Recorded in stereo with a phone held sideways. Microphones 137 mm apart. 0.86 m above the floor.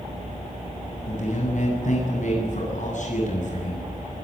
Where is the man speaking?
65° left (ahead or behind), 8.5 m.